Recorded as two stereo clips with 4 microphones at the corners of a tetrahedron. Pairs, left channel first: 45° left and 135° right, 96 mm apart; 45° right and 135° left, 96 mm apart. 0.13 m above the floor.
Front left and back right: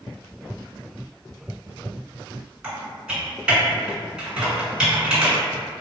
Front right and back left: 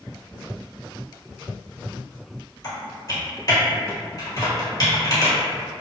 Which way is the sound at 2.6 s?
55° right.